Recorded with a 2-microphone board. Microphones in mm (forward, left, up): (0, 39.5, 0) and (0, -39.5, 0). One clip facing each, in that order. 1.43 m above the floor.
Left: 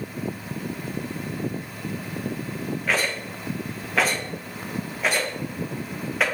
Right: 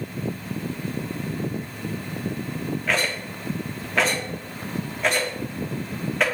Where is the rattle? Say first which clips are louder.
Left 1 dB; 5° left (ahead or behind), 1.0 m.